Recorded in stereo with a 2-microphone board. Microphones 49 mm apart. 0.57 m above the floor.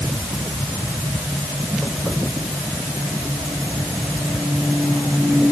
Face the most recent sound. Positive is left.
No sound to turn to.